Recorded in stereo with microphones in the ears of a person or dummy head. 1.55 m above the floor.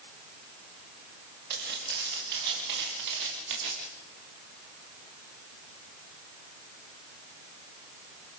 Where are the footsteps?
55° right (ahead or behind), 8 m; by 3.9 s 65° right (ahead or behind), 5.5 m.